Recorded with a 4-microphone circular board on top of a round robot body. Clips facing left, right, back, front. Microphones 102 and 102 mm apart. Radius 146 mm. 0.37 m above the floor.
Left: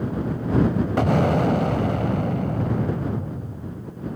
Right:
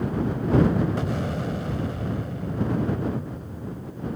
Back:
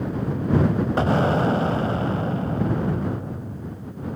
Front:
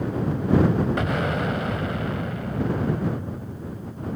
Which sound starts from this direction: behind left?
An explosion, at 1.0 s.